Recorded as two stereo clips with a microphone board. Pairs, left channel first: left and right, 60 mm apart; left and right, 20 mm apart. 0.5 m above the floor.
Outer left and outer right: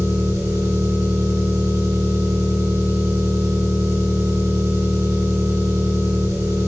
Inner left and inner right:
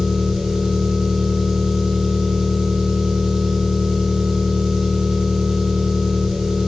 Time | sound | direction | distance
0.0 | an engine running | 70° right (ahead or behind) | 4.5 m